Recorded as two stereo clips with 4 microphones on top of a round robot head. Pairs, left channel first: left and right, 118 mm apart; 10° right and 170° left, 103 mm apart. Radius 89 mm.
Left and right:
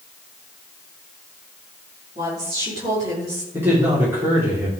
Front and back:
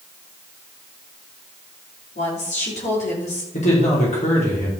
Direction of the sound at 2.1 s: 25° right.